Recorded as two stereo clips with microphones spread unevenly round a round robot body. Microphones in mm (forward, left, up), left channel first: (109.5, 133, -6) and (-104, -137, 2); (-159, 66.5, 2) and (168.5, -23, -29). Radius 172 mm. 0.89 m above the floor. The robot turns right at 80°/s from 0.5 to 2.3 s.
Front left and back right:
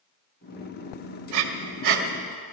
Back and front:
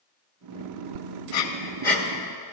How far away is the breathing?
About 1.5 m.